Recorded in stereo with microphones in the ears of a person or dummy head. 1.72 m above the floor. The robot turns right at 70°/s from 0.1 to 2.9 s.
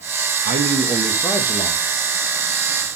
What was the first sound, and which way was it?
A man speaking, 50° right.